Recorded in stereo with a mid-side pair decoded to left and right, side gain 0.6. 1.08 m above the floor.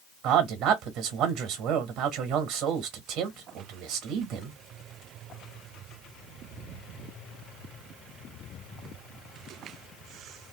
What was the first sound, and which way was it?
A man speaking, 65° right.